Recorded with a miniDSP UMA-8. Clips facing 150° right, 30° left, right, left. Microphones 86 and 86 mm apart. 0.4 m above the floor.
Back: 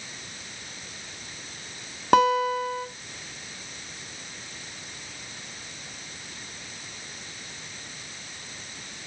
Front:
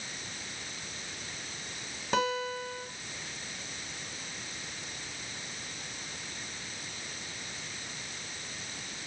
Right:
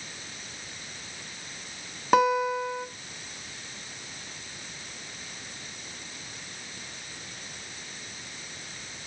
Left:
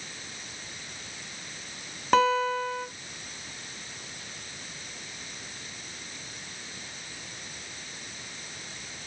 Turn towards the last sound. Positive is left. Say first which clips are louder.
# back 11 dB, even
turn(degrees=-170)